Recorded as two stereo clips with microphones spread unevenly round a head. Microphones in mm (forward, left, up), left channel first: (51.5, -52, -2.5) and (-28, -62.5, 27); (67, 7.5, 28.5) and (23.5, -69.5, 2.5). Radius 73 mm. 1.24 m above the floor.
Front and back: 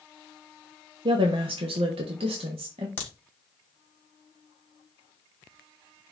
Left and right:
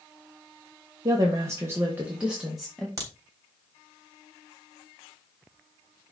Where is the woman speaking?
150° right, 1.0 m; by 2.9 s 155° left, 1.4 m.